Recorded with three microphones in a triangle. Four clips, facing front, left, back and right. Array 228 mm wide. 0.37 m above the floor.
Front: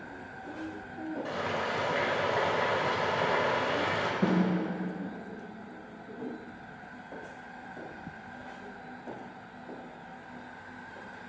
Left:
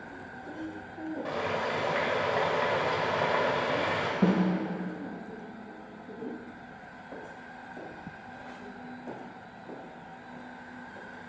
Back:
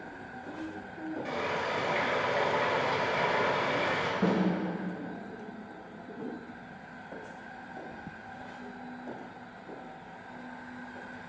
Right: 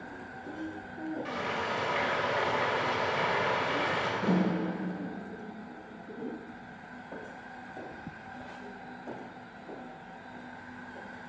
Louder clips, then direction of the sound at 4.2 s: Left 3 dB, front 1 dB; 85° left.